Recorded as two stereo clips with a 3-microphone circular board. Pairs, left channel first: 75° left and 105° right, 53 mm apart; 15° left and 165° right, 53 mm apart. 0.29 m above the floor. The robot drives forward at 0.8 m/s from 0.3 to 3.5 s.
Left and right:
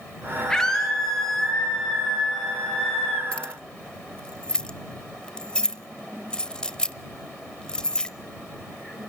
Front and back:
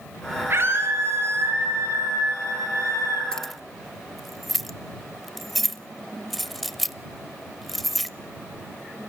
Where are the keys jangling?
55° left, 0.6 m; by 8.1 s 105° left, 0.5 m.